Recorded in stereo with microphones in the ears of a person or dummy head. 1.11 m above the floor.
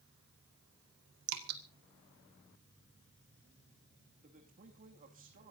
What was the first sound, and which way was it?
Dripping, 80° right.